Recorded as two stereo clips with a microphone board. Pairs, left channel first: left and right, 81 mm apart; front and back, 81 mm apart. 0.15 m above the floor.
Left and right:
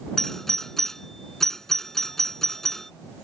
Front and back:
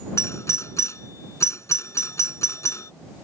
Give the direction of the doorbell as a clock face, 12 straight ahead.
12 o'clock.